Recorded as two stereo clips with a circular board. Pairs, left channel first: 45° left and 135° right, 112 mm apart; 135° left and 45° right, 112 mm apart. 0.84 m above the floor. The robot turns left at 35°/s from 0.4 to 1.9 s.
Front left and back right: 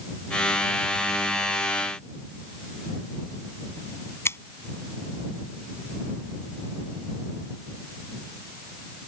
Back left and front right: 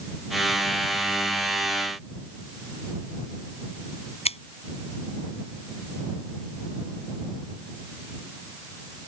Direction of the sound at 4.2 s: 115° left.